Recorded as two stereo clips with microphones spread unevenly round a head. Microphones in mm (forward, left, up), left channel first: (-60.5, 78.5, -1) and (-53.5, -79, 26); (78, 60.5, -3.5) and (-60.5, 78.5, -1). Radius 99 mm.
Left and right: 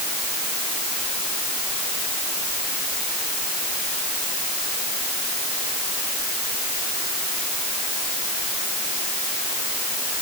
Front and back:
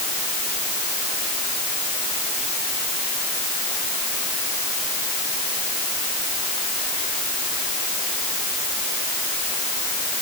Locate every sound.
Only background noise.